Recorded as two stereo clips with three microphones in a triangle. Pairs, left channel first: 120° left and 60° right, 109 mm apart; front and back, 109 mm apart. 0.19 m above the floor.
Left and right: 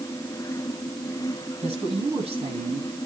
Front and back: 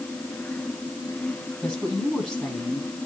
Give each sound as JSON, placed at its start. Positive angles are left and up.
{"t": 1.6, "sound": "a woman speaking", "azimuth_deg": -95, "distance_m": 8.5}